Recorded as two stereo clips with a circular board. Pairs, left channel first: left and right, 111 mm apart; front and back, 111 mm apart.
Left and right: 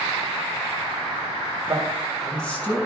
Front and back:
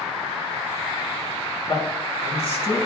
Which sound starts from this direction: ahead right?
A man speaking, at 1.7 s.